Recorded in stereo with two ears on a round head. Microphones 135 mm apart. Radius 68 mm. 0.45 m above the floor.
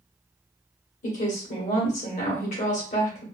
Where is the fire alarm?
No fire alarm in this recording.